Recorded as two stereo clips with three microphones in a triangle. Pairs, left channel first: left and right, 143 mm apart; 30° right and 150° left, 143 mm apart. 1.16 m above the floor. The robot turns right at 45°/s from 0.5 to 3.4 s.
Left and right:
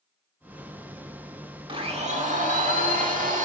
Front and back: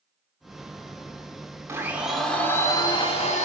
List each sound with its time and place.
1.7 s a blender: 140° right, 1.6 m; by 3.5 s 65° right, 1.6 m